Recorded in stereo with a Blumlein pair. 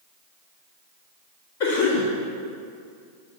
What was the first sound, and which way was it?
A cough, 55° left.